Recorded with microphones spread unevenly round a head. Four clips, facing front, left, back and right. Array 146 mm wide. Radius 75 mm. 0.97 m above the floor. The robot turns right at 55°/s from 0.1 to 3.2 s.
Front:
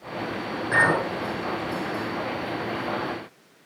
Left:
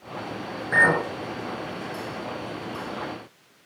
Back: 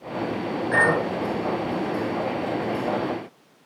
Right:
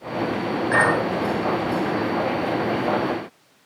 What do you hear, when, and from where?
0.7 s a clink: 45° right, 6.5 m; by 1.1 s 25° right, 6.5 m